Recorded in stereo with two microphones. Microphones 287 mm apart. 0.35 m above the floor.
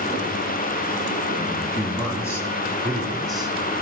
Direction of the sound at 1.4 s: 15° left (ahead or behind).